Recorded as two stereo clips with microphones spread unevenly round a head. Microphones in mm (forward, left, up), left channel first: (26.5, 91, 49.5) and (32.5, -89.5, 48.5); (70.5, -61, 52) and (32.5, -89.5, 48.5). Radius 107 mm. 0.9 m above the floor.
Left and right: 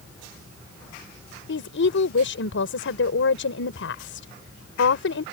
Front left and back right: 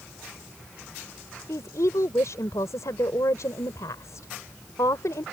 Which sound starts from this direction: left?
A woman speaking, at 1.5 s.